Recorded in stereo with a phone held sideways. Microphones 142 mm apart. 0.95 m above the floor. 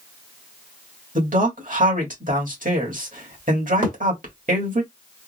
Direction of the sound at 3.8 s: 75° right (ahead or behind).